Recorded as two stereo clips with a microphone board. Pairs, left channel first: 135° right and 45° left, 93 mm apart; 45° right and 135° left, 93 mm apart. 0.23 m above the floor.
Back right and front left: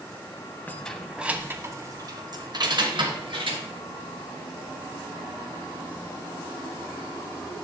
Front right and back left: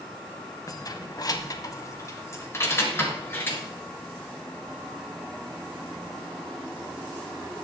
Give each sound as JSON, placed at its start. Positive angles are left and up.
{"t": 0.7, "sound": "keys jangling", "azimuth_deg": -70, "distance_m": 0.8}